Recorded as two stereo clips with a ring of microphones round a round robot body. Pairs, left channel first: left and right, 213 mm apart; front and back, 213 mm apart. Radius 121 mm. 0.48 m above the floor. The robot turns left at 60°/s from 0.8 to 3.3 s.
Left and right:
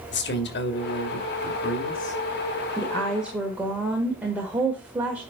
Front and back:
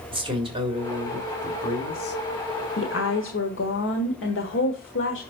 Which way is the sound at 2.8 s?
25° left.